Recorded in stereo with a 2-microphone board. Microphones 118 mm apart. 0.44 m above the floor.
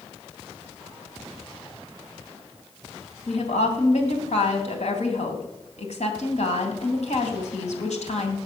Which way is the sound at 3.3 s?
70° left (ahead or behind).